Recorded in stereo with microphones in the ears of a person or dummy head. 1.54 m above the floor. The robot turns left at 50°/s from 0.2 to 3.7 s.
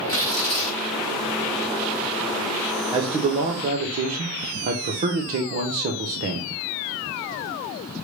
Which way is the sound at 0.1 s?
155° left.